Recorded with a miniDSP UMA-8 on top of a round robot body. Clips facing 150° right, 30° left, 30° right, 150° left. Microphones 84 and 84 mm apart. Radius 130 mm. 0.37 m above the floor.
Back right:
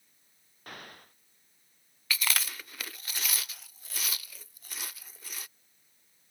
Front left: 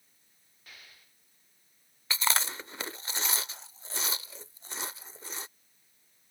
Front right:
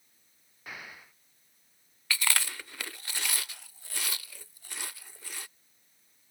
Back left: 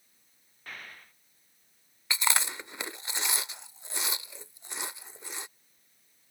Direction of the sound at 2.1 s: 85° left.